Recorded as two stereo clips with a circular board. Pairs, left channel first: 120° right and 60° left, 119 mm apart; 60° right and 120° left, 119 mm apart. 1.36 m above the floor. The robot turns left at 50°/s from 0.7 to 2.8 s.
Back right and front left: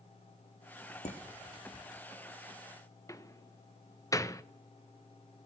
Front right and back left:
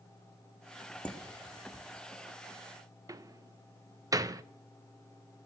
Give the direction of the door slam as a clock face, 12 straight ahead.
6 o'clock.